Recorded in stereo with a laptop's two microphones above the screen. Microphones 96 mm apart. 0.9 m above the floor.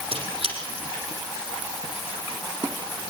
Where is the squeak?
65° right (ahead or behind), 4 m.